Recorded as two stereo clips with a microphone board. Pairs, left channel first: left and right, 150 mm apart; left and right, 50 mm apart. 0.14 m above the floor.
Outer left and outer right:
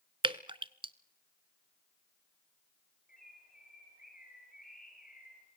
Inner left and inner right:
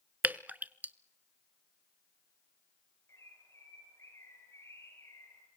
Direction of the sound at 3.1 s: 70° left (ahead or behind).